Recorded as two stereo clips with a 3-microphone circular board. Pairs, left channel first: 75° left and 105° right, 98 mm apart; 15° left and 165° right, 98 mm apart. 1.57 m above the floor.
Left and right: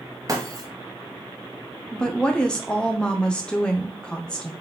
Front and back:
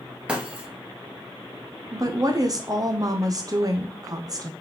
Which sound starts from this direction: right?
Breaking glass, at 0.3 s.